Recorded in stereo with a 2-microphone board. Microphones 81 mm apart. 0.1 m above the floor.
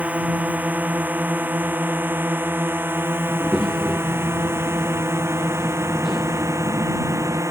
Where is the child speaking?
5° right (ahead or behind).